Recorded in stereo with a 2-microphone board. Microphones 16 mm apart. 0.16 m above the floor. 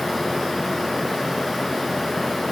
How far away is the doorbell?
I don't hear a doorbell.